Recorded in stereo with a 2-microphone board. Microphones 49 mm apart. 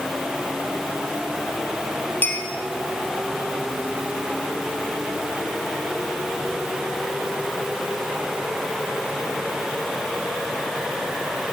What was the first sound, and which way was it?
A clink, 40° left (ahead or behind).